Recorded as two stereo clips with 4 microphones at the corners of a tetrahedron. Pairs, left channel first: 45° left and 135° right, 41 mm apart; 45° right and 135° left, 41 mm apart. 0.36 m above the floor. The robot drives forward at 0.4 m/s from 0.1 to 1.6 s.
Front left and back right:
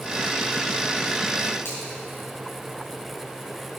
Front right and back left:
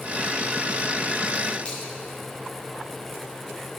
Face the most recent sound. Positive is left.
turn(degrees=20)